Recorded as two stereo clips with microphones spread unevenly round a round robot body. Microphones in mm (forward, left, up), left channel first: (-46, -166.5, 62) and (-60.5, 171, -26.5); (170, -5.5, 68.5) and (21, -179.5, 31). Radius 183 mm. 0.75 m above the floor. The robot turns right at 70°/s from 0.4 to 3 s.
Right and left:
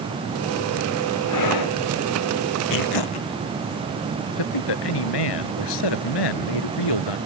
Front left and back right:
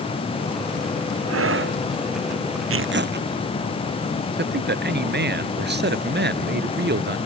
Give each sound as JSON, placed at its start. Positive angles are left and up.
{"t": 1.3, "sound": "breathing", "azimuth_deg": -125}
{"t": 2.7, "sound": "tearing paper", "azimuth_deg": -115}
{"t": 4.4, "sound": "a man speaking", "azimuth_deg": -90}